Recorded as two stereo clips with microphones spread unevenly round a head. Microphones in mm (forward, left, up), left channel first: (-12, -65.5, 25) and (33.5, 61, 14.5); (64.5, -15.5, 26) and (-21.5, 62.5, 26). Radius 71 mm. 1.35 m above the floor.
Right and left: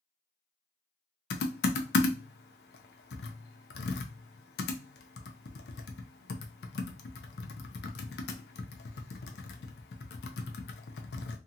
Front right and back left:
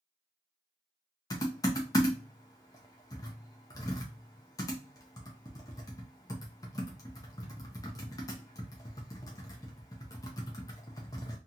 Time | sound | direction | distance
1.3 | typing on a keyboard | 110° right | 0.5 m